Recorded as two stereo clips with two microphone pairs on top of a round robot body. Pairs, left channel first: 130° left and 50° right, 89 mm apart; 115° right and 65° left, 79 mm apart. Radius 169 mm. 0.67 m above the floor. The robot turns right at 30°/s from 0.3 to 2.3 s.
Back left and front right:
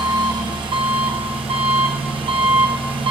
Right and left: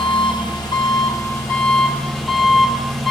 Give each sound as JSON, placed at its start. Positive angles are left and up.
{"t": 0.0, "sound": "an engine running", "azimuth_deg": -95, "distance_m": 1.3}